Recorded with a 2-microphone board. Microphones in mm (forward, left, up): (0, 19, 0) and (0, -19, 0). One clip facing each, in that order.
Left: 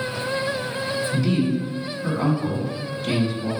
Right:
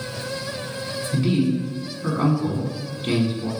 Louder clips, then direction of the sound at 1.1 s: Right 3 dB; 30° right (ahead or behind).